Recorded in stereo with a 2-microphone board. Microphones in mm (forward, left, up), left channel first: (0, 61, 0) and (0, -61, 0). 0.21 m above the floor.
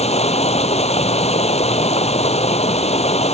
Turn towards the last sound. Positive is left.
turn(degrees=60)  # may be behind; listen again after turning